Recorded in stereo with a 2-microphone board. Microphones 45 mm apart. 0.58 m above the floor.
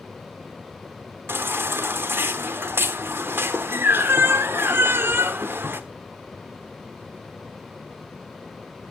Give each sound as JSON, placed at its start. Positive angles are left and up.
{"t": 1.3, "sound": "a baby crying", "side_deg": -60, "distance_m": 0.9}